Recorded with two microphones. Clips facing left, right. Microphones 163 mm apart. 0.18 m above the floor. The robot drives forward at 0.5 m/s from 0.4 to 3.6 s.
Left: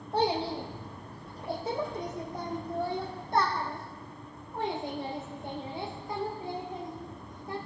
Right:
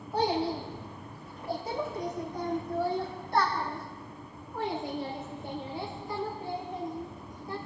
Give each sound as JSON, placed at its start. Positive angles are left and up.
{"t": 0.1, "sound": "a child speaking", "side_deg": 30, "distance_m": 4.5}